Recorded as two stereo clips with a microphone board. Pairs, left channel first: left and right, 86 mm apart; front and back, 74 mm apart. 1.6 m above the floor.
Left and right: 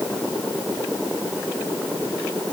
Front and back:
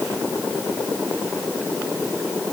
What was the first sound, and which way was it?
Only background noise.